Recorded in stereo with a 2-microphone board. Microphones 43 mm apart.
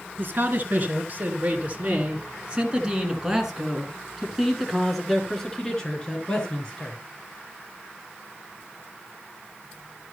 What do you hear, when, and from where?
0.2 s a man speaking: 45° right (ahead or behind), 3 m; by 7.0 s 25° left (ahead or behind), 3 m